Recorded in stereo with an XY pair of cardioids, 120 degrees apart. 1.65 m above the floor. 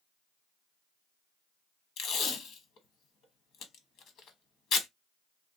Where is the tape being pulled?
65° left, 1.2 m.